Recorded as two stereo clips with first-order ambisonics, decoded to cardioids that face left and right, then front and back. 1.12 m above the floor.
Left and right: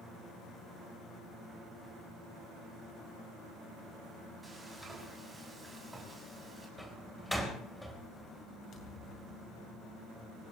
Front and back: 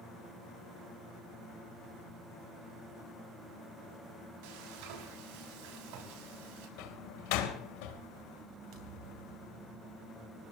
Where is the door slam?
5° left, 4 m.